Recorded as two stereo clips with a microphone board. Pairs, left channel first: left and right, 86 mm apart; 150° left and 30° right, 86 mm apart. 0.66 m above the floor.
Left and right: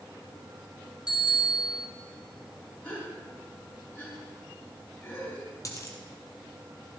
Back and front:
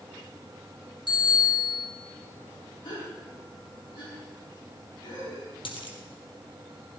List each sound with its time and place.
1.1 s a bicycle bell: 125° left, 4.5 m
2.8 s a gasp: 155° left, 5.5 m
5.7 s a dropped coin: 140° left, 2.5 m